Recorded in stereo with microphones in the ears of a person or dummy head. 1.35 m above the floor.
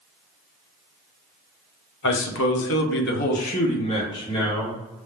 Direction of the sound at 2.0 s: 55° left (ahead or behind).